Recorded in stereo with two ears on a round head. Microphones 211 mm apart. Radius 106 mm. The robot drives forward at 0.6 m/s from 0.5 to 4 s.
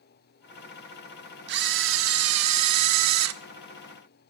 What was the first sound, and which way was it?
A camera shutter, 45° right (ahead or behind).